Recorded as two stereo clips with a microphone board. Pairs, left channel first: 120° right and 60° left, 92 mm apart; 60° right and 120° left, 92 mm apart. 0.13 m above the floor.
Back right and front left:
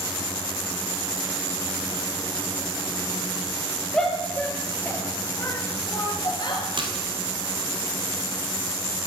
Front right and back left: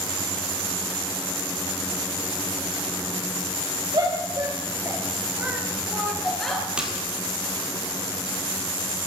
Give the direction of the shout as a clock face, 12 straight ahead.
7 o'clock.